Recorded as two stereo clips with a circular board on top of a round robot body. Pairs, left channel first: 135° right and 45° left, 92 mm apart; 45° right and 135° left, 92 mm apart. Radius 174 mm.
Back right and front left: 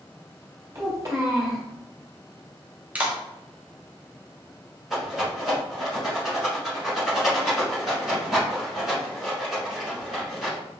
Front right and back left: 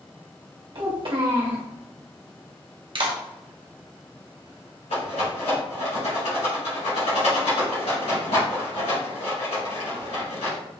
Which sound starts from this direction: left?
A child speaking, at 0.8 s.